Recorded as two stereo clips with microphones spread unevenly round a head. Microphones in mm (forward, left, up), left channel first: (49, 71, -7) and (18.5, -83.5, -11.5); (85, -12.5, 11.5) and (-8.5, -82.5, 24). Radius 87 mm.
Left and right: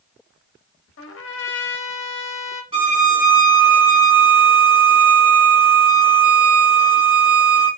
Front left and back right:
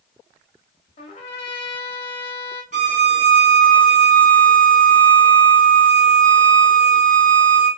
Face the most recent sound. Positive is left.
turn(degrees=-160)